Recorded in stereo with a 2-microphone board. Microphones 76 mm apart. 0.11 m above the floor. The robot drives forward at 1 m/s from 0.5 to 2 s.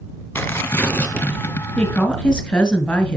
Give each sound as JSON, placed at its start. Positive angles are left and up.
{"t": 0.3, "sound": "tearing paper", "side_deg": 25, "distance_m": 1.0}
{"t": 1.8, "sound": "a woman speaking", "side_deg": 15, "distance_m": 1.1}